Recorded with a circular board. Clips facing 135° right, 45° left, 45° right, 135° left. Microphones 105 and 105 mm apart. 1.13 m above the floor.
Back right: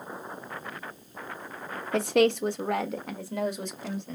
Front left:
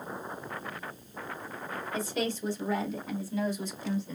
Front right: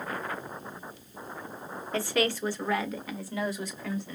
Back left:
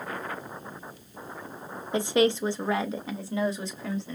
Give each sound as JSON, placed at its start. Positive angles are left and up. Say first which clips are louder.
{"t": 1.9, "sound": "a woman speaking", "louder": "back right 11 dB, back left 5 dB", "azimuth_deg": -155, "distance_m": 0.5}